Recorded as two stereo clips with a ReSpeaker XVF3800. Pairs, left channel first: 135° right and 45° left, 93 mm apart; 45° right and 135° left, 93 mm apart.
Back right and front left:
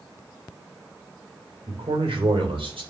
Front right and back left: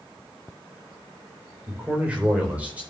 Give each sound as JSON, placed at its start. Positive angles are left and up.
{"t": 1.7, "sound": "a man speaking", "azimuth_deg": 55, "distance_m": 3.0}